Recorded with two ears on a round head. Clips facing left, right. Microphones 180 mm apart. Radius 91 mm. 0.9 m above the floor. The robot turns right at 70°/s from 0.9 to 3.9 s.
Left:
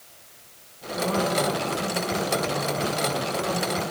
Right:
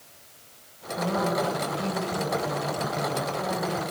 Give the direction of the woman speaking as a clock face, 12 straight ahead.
7 o'clock.